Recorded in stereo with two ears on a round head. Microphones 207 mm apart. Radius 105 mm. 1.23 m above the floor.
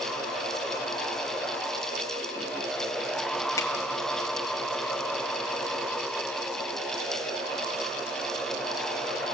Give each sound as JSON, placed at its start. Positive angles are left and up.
{"t": 3.6, "sound": "a finger snap", "side_deg": 15, "distance_m": 5.0}